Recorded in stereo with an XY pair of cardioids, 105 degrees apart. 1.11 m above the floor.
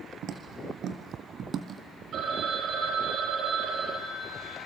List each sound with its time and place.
0.2 s footsteps: 70° right, 4 m; by 1.8 s 65° right, 2 m
2.1 s a phone ringing: 65° right, 3.5 m